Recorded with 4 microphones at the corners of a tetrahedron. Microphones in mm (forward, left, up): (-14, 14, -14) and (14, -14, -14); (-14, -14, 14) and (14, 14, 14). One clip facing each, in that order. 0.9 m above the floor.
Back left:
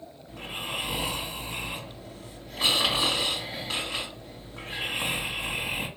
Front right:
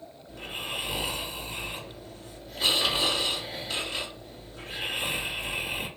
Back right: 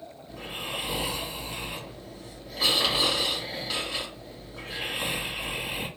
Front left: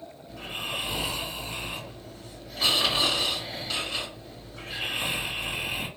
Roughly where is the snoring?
Behind left.